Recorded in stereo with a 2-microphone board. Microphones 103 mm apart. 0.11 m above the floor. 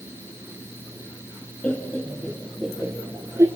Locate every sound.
1.6 s laughter: 15° left (ahead or behind), 1.2 m; by 3.5 s 30° right (ahead or behind), 1.4 m